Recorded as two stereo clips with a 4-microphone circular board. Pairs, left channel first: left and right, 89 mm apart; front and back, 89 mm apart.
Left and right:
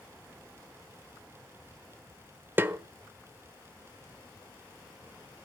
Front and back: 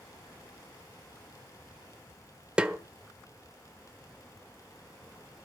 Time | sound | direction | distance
2.6 | a snare drum | 115° right | 1.1 m